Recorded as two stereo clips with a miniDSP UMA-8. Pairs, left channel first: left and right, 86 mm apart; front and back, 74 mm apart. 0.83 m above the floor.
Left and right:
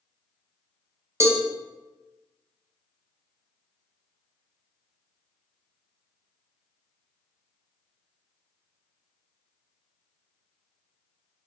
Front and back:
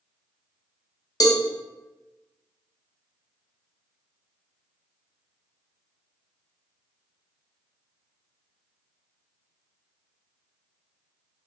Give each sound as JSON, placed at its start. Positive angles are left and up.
{"t": 1.2, "sound": "a cowbell", "azimuth_deg": -30, "distance_m": 0.5}